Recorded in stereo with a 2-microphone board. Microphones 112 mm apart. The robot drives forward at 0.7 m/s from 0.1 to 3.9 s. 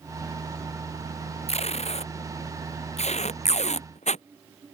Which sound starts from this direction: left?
Tape being pulled, at 1.5 s.